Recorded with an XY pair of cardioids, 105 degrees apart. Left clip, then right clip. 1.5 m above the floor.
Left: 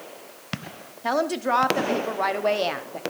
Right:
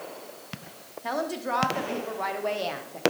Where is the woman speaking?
40° left, 0.9 m.